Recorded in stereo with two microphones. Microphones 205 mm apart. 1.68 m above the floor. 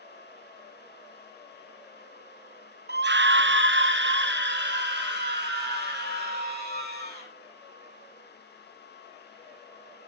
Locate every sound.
2.9 s a scream: 55° right (ahead or behind), 0.6 m; by 7.3 s 50° right (ahead or behind), 3 m